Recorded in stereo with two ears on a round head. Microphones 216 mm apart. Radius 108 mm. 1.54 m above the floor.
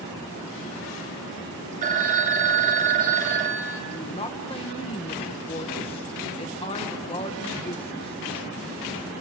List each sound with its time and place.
1.8 s a phone ringing: 35° right (ahead or behind), 1.9 m
3.9 s a woman speaking: 25° left (ahead or behind), 1.8 m